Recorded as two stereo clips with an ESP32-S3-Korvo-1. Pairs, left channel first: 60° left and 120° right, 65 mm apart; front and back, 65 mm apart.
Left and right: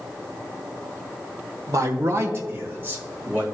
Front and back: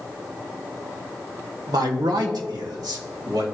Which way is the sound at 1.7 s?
155° right.